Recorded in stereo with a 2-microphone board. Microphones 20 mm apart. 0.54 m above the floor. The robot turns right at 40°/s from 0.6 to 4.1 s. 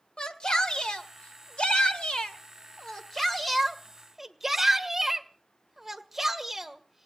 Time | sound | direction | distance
0.2 | a shout | 45° left (ahead or behind) | 1.8 m